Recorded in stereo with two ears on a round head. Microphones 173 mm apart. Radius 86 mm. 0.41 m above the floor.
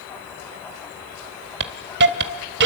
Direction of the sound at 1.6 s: 55° right (ahead or behind).